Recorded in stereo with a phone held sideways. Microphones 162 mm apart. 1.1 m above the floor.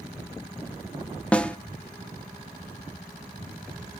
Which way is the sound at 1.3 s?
5° left (ahead or behind).